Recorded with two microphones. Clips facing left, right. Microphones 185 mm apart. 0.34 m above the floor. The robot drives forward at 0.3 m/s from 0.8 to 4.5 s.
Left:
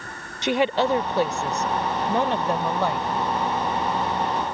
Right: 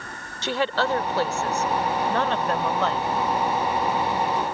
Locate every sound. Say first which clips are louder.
0.4 s a woman speaking: left 3 dB; 20° left (ahead or behind); by 3.1 s 15° left (ahead or behind)